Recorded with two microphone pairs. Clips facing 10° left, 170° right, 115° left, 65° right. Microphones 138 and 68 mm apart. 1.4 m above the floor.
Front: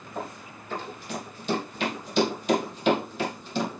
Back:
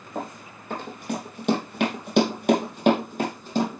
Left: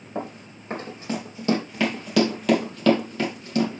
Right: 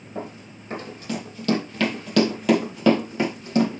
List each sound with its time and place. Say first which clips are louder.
0.1 s running footsteps: back 3 dB, left 2 dB; 155° left, 4 m; by 3.8 s 120° right, 4 m